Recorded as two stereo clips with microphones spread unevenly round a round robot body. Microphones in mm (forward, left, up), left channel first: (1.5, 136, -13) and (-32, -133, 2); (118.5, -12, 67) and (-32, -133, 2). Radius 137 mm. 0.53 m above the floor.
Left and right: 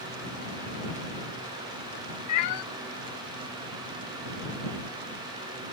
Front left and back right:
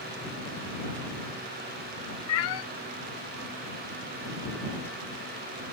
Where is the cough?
I don't hear a cough.